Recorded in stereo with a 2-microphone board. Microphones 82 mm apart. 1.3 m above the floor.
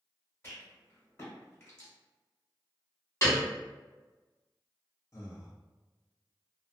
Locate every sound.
0.4 s a rattle: 30° left (ahead or behind), 1.3 m
3.2 s a piano: 30° left (ahead or behind), 1.3 m
5.1 s breathing: 35° left (ahead or behind), 0.7 m